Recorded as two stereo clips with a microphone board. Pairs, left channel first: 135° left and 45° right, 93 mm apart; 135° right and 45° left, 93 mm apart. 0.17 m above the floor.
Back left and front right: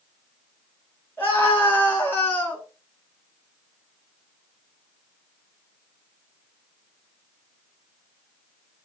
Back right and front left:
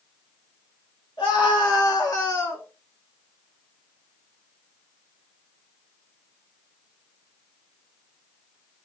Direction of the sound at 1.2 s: 160° right.